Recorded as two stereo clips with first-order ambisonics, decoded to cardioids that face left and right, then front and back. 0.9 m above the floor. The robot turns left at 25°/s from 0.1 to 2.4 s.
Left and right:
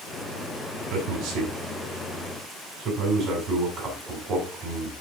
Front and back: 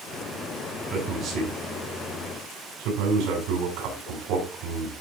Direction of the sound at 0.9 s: 115° right.